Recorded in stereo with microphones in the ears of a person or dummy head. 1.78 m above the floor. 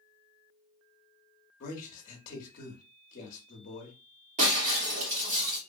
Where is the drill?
I don't hear a drill.